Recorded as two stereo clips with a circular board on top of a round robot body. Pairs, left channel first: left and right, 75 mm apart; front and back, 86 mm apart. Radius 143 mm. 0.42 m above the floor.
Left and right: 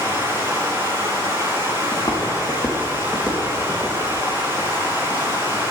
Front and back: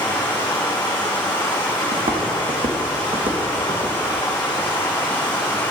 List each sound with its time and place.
0.0 s running water: 35° right, 3 m
1.9 s footsteps: 160° left, 1.5 m; by 4.0 s 165° right, 2.5 m